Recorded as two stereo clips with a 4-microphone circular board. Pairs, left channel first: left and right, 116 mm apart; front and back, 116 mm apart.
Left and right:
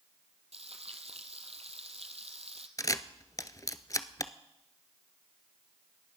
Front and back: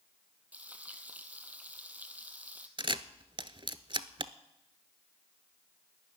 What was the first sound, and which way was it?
Frying, 105° right.